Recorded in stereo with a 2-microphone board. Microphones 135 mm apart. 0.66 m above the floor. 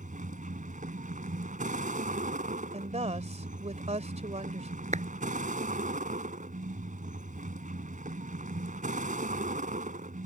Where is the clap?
60° right (ahead or behind).